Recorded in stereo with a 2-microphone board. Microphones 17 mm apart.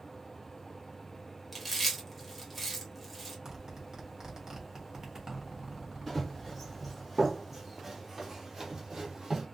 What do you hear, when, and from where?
1.5 s chewing: centre (ahead or behind), 0.9 m
3.5 s a zipper: 40° right (ahead or behind), 1.0 m
6.1 s running footsteps: 15° left (ahead or behind), 1.5 m; by 9.4 s 40° right (ahead or behind), 1.6 m